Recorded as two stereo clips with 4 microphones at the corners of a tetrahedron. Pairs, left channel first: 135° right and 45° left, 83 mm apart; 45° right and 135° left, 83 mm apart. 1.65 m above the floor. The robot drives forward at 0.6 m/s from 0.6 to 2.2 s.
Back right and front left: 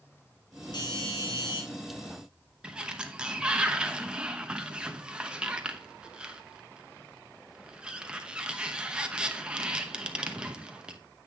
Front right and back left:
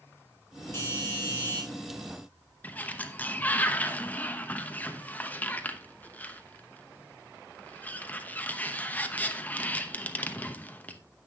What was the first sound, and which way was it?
A doorbell, 110° right.